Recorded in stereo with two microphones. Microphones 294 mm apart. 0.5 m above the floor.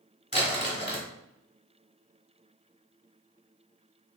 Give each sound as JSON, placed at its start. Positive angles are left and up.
{"t": 0.3, "sound": "crumpling", "side_deg": 35, "distance_m": 1.4}